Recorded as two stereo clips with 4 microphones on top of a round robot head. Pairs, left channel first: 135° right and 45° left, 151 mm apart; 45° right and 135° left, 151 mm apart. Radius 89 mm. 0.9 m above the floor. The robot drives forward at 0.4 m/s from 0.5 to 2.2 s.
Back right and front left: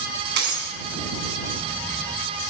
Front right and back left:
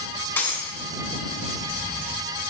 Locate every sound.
0.4 s breaking glass: 35° left, 4 m